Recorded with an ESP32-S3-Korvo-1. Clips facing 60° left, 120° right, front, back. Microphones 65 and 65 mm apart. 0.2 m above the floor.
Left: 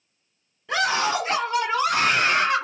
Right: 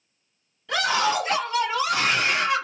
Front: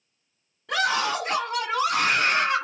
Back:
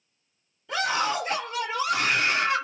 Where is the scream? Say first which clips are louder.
Even, front 2 dB; 5° right, 2 m; by 2.6 s 40° left, 1.5 m.